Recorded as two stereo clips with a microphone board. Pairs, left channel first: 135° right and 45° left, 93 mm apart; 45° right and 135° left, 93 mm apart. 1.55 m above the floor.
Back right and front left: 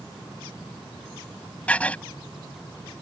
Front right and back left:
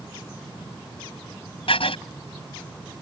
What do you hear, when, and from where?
1.7 s writing: 60° right